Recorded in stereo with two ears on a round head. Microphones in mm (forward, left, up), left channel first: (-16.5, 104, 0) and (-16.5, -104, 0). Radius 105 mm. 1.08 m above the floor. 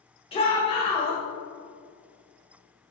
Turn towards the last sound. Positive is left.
turn(degrees=25)  # may be behind; listen again after turning